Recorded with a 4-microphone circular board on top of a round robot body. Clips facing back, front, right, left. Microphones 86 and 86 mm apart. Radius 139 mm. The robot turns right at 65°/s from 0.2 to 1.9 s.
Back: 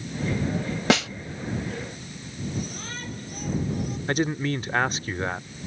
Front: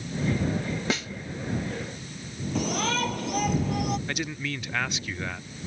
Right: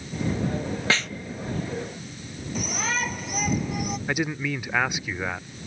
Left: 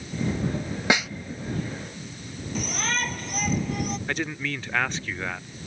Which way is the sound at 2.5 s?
5° right.